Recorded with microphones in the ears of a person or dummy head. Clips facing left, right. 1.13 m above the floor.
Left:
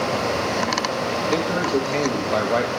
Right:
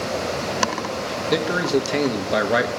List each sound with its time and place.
1.3 s a man speaking: 15° right (ahead or behind), 1.0 m